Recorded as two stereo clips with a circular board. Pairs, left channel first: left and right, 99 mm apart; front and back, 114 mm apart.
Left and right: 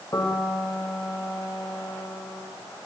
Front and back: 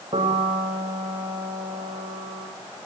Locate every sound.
0.1 s a piano: 145° left, 6.5 m